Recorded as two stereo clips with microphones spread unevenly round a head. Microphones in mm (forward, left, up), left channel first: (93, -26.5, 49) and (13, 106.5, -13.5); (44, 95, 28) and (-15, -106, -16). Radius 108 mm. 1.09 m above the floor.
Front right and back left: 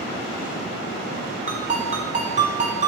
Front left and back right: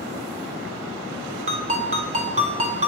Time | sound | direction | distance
1.5 | a ringtone | 175° right | 0.7 m